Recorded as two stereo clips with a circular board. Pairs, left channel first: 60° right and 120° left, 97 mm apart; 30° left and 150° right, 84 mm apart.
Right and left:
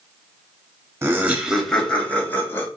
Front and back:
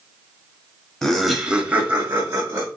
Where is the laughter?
105° left, 1.0 m; by 2.7 s 110° right, 1.3 m.